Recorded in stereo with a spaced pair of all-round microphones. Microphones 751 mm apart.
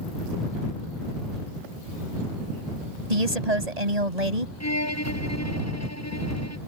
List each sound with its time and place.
3.1 s a woman speaking: 55° right (ahead or behind)
4.6 s a violin: 20° left (ahead or behind)